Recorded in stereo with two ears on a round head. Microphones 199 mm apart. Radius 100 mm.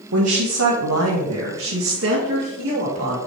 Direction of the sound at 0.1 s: 80° right.